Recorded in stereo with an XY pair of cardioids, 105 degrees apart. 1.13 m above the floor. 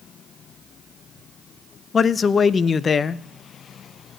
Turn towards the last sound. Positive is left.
turn(degrees=35)